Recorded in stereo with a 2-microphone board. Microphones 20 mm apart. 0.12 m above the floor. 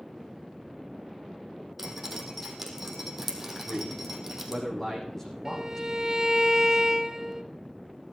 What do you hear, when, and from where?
1.8 s dripping: 10° right (ahead or behind), 3.5 m
3.6 s a man speaking: 20° left (ahead or behind), 5.5 m
5.5 s a violin: 25° right (ahead or behind), 0.9 m